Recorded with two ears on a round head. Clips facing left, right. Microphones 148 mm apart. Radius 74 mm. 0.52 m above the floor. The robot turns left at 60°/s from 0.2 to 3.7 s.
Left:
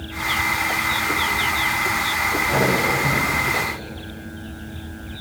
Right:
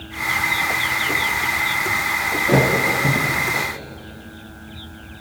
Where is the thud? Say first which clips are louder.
Right 4 dB; 60° right (ahead or behind), 9 m; by 3.6 s 10° left (ahead or behind), 9 m.